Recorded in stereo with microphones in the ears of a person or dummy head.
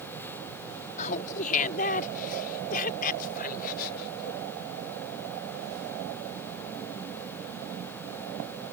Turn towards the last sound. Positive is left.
turn(degrees=55)  # may be behind; listen again after turning